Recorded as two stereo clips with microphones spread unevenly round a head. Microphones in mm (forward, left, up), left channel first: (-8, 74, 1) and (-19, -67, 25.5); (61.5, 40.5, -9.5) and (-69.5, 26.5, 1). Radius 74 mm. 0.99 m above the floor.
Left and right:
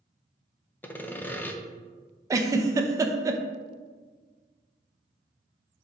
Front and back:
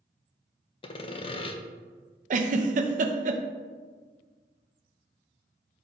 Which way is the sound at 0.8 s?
25° left.